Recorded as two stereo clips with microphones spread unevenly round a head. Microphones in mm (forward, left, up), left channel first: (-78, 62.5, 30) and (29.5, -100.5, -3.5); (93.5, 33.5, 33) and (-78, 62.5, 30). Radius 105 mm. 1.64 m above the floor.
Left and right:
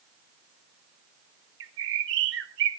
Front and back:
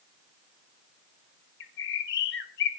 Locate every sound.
1.6 s a bird: 25° right, 1.6 m